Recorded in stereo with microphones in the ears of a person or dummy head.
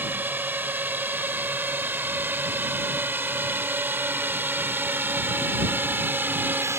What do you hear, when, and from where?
0.0 s a drone: 10° right (ahead or behind)